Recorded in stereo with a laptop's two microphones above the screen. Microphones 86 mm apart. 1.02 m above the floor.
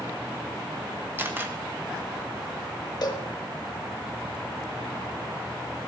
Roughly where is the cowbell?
Left.